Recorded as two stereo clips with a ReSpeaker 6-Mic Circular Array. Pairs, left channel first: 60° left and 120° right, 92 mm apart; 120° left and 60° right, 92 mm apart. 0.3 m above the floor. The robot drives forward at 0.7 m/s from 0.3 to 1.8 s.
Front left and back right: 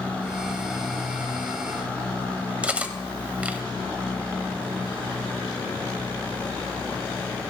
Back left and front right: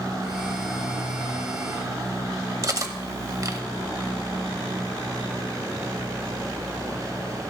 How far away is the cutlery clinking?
About 0.9 m.